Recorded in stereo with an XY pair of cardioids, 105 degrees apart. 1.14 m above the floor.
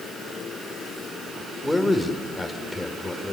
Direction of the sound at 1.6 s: 5° left.